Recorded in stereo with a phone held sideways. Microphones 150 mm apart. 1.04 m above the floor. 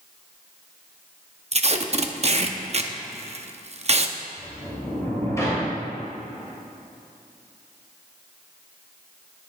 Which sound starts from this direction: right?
Tape being pulled, at 1.5 s.